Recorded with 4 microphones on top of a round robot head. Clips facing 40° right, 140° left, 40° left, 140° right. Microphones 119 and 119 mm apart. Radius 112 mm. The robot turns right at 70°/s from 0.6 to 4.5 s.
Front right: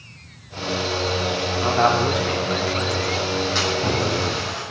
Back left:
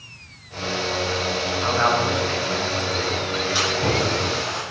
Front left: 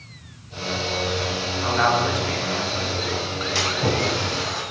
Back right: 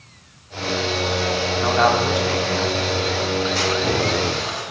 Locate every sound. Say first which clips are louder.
1.6 s a man speaking: front right 3 dB, back right 2 dB; 100° right, 2.5 m; by 2.9 s 5° right, 2.5 m
3.5 s a splash: even, back right 3 dB; 60° left, 5 m; by 4.6 s 125° left, 5 m